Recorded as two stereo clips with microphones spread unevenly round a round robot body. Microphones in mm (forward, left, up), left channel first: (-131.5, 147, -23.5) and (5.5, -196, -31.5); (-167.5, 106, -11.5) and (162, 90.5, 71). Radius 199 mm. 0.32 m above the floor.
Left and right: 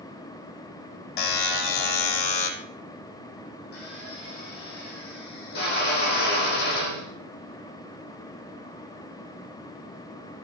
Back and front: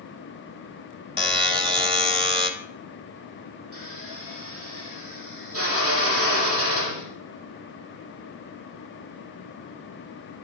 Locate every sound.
1.2 s a buzzer: 75° left, 3 m
3.7 s a drill: 45° left, 10 m